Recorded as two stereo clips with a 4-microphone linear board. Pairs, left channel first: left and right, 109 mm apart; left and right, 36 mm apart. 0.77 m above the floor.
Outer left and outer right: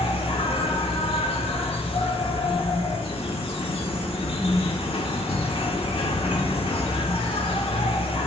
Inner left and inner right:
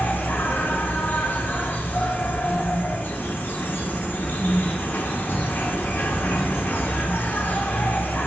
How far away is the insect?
About 1.1 m.